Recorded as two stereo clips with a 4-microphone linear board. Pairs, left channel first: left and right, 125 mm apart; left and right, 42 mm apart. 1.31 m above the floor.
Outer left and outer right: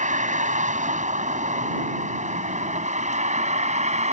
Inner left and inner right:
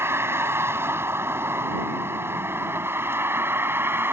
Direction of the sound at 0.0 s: 85° right.